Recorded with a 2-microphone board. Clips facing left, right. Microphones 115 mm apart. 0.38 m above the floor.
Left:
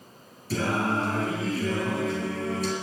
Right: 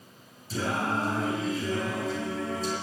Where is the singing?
70° left (ahead or behind), 4 m.